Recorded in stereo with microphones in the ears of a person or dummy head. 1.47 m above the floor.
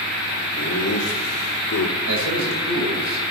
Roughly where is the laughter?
Left.